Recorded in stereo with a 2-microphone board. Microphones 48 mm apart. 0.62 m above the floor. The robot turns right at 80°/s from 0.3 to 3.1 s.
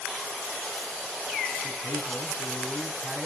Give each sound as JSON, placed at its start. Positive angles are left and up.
{"t": 1.6, "sound": "a man speaking", "azimuth_deg": 65, "distance_m": 4.0}